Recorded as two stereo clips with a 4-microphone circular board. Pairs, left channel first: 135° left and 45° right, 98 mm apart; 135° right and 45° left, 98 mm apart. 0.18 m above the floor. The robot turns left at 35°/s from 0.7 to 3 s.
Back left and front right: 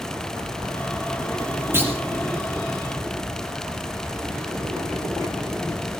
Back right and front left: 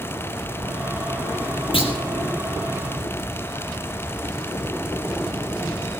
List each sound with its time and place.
1.7 s a clunk: 110° right, 2.5 m; by 1.9 s 120° right, 2.5 m